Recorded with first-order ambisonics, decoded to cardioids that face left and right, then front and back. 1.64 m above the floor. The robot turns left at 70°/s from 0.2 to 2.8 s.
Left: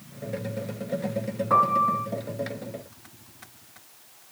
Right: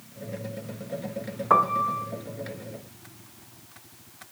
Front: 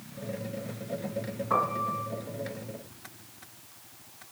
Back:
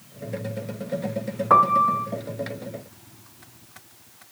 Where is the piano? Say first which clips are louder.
Left 1 dB, back 11 dB; 145° right, 0.6 m; by 2.1 s 175° left, 0.6 m.